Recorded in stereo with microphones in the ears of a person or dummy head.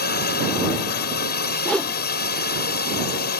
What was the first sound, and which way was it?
A drone, 55° left (ahead or behind).